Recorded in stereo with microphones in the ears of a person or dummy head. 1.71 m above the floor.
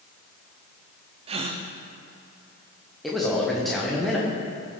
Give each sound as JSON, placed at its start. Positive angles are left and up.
{"t": 1.3, "sound": "a gasp", "side_deg": -30, "distance_m": 0.5}
{"t": 3.0, "sound": "a man speaking", "side_deg": 0, "distance_m": 1.2}